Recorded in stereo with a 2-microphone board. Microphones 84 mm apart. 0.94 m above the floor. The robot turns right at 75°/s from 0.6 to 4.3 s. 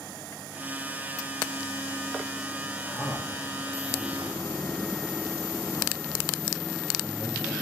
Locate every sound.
2.8 s a man speaking: 10° left (ahead or behind), 2 m; by 7.5 s 55° left (ahead or behind), 2 m